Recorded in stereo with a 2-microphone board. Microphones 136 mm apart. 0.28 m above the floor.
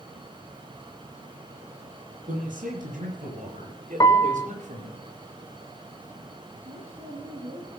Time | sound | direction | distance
2.3 | a man speaking | 80° right | 7 m
4.0 | a piano | 25° left (ahead or behind) | 0.6 m
6.6 | a woman speaking | 45° right (ahead or behind) | 8 m